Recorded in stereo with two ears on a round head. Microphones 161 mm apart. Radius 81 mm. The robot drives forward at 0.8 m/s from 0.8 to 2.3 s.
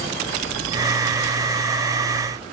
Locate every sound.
Only background noise.